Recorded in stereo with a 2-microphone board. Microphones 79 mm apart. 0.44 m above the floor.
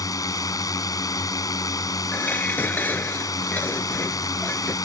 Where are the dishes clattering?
25° left (ahead or behind).